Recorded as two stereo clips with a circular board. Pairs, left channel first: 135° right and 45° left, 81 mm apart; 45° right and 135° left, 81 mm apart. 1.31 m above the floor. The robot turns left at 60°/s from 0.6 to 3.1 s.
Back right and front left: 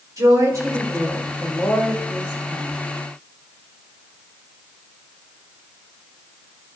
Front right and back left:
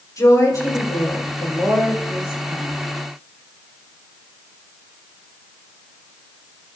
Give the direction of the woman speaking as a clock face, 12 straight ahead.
12 o'clock.